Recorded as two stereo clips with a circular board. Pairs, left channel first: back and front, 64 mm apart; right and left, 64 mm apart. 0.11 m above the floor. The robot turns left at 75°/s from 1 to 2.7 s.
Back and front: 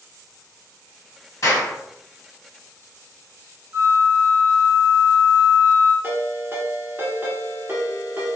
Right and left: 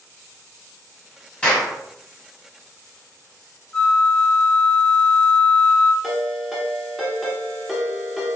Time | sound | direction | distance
1.4 | a clap | 160° right | 2.0 m
3.7 | a flute | 15° right | 0.7 m
6.0 | a ringtone | straight ahead | 1.1 m